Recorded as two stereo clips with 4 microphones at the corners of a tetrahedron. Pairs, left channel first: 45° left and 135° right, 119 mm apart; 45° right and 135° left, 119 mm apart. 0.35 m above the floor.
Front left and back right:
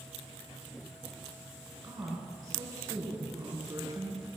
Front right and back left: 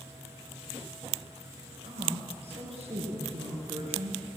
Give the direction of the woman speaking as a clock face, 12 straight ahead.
6 o'clock.